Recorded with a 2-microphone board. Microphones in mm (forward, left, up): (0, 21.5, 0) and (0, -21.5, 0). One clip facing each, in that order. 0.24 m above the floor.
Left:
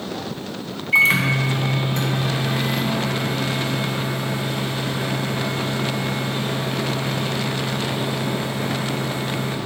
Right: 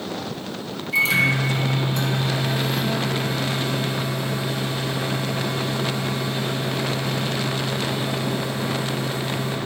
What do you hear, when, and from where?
0.9 s a microwave: 50° left (ahead or behind), 1.4 m